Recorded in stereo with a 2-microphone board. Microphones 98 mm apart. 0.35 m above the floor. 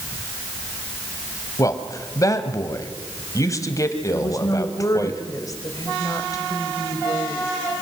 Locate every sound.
1.6 s a man speaking: 35° left (ahead or behind), 2 m
4.1 s a woman speaking: 35° left (ahead or behind), 2 m